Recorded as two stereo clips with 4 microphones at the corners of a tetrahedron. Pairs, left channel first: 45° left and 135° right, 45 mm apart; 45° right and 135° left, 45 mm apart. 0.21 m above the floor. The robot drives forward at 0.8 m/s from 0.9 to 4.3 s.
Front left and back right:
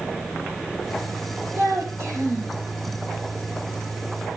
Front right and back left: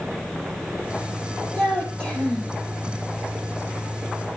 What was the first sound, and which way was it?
A child speaking, 110° right.